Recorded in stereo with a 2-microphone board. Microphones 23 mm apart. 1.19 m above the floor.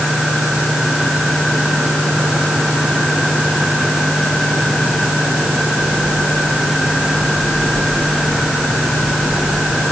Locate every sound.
Only background noise.